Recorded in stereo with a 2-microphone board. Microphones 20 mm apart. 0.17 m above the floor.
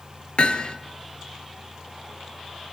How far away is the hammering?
About 1.5 m.